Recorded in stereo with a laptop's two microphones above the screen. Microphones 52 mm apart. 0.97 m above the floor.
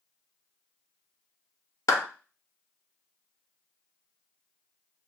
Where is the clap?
65° left (ahead or behind), 0.8 m.